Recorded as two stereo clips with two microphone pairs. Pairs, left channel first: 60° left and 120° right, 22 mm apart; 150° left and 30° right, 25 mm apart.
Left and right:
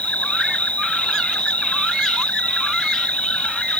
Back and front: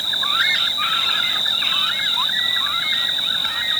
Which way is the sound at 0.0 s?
60° left.